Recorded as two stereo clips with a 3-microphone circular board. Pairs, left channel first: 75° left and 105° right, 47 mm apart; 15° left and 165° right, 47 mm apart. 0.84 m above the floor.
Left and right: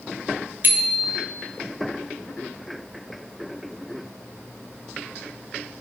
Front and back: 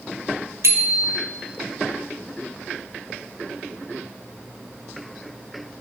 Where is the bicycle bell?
150° right, 2.5 m.